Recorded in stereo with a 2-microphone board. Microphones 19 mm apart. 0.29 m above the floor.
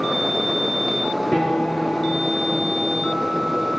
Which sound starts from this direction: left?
A piano, at 1.3 s.